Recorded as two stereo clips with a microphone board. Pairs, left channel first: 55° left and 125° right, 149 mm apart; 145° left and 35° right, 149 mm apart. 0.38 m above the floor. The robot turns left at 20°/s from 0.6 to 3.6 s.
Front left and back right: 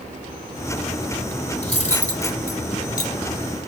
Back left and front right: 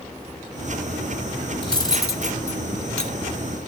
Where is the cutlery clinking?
90° left, 1.0 m; by 3.6 s 50° left, 1.0 m.